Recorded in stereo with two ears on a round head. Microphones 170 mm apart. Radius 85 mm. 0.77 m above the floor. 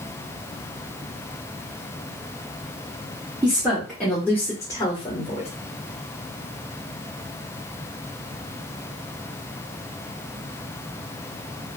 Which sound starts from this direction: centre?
A woman speaking, at 3.4 s.